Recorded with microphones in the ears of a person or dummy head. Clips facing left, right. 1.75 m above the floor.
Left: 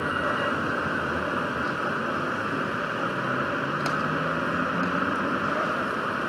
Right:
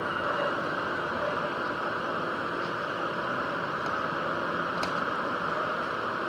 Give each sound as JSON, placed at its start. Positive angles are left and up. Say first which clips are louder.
{"t": 0.0, "sound": "a vehicle", "louder": "left 2 dB", "side_deg": 35}